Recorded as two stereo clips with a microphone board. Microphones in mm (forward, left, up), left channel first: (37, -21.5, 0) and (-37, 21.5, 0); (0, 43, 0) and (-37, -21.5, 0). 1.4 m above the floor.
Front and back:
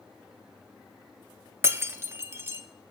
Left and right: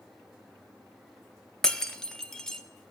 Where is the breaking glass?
135° left, 0.5 m.